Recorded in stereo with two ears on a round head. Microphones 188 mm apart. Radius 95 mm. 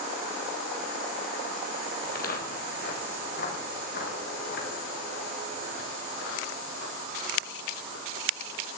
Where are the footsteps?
45° left (ahead or behind), 3.5 m; by 8.6 s 60° left (ahead or behind), 7 m.